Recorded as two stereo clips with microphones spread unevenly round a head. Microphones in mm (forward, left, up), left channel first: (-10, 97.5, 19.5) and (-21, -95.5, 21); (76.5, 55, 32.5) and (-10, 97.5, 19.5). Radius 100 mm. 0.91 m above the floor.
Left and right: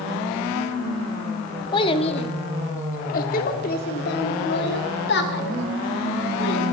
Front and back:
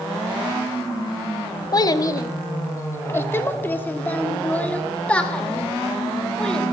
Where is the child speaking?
20° left, 1.4 m; by 6.6 s 55° left, 3.5 m.